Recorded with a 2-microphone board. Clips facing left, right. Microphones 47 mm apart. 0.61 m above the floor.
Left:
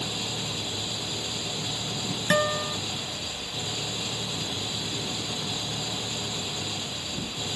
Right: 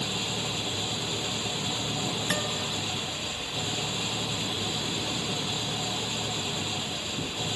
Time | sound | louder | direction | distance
0.0 | an engine running | right 1 dB | 20° right (ahead or behind) | ?
2.3 | a guitar | left 6 dB | 45° left (ahead or behind) | ?